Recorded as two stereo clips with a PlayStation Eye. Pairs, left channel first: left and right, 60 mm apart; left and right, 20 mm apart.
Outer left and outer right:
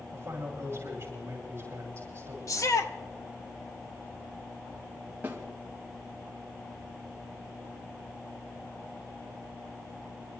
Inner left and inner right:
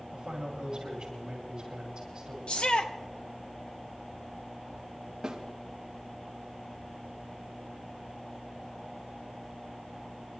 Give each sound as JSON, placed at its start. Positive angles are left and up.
{"t": 0.1, "sound": "a man speaking", "side_deg": -40, "distance_m": 8.5}
{"t": 2.5, "sound": "a shout", "side_deg": 65, "distance_m": 1.4}
{"t": 5.2, "sound": "a snare drum", "side_deg": -30, "distance_m": 3.0}